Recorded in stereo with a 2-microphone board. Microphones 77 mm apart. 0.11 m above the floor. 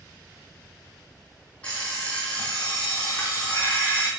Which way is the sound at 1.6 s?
10° left (ahead or behind).